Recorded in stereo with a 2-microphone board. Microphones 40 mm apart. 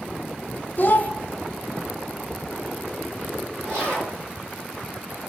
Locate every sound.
0.8 s a child speaking: 45° left (ahead or behind), 0.6 m
3.6 s a zipper: 85° right, 3 m